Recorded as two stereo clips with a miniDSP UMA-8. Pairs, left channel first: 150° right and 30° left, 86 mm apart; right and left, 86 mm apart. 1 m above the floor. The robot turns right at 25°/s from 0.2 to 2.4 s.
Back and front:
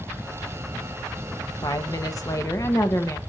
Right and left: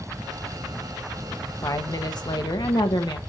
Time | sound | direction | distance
1.6 | a woman speaking | 125° right | 1.1 m